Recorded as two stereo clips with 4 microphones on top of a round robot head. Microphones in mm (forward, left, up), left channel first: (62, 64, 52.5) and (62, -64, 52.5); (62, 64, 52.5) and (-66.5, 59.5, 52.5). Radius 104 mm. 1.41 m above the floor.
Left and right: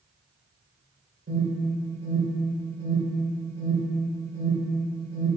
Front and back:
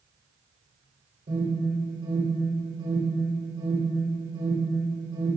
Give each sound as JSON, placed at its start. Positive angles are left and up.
{"t": 1.3, "sound": "an alarm", "azimuth_deg": -125, "distance_m": 5.0}